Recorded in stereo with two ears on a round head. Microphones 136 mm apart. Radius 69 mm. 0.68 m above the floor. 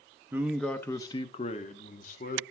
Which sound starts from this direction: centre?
A man speaking, at 0.3 s.